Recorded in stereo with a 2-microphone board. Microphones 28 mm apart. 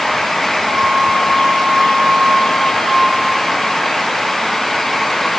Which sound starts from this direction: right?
A flute, at 0.7 s.